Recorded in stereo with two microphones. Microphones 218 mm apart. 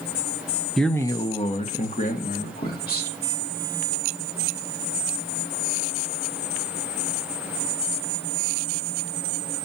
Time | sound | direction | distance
0.8 | a man speaking | centre (ahead or behind) | 0.7 m